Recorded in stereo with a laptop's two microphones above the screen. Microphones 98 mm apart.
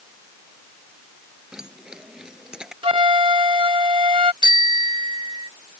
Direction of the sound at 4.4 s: 50° right (ahead or behind).